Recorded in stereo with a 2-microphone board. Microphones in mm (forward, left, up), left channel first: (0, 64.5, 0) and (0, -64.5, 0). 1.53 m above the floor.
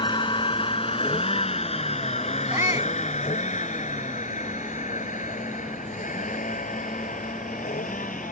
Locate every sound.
0.0 s a vehicle: 35° left (ahead or behind); by 8.3 s 80° left
2.5 s a shout: 20° right (ahead or behind)